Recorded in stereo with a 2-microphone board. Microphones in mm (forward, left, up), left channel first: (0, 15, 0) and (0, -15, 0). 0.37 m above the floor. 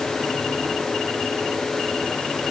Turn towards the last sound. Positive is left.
No sound to turn to.